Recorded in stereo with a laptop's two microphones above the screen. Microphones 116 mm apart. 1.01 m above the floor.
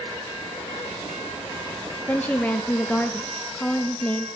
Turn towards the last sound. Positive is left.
turn(degrees=15)  # may be behind; listen again after turning